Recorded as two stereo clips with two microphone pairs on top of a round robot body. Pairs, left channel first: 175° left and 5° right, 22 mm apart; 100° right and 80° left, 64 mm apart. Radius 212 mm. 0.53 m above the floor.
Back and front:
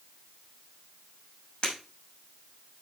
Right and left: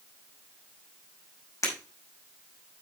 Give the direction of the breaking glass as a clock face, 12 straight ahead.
5 o'clock.